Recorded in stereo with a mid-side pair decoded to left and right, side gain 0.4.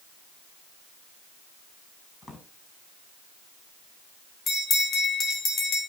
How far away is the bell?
About 3.5 m.